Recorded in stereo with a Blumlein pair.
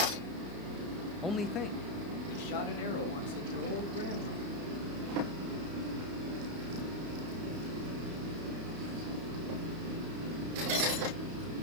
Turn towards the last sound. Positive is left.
turn(degrees=65)